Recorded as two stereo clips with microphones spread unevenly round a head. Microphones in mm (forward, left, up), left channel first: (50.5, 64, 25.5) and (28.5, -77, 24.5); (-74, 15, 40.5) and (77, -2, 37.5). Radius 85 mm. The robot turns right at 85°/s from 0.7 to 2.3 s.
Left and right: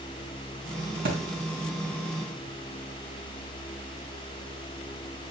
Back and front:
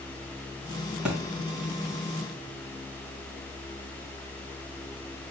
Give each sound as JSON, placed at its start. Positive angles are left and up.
{"t": 1.1, "sound": "a thud", "azimuth_deg": -90, "distance_m": 3.0}